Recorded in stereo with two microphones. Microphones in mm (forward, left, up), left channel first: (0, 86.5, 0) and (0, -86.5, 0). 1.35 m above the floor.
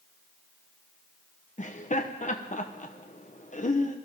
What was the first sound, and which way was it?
Laughter, 45° left (ahead or behind).